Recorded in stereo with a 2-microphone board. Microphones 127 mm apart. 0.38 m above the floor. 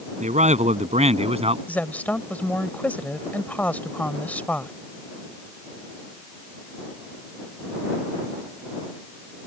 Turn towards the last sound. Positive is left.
turn(degrees=15)  # may be behind; listen again after turning